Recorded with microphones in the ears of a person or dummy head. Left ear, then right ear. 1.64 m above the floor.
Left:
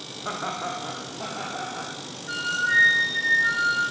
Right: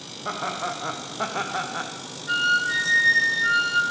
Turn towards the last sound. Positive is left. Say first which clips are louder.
# right 3 dB
turn(degrees=-15)  # may be behind; listen again after turning